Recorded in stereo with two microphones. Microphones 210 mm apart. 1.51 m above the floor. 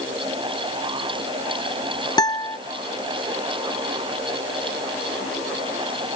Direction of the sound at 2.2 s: 20° left (ahead or behind).